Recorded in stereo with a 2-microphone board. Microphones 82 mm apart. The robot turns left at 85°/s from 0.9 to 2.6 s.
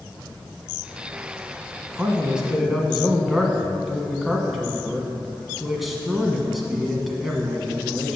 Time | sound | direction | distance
2.0 | a man speaking | 20° right (ahead or behind) | 1.2 m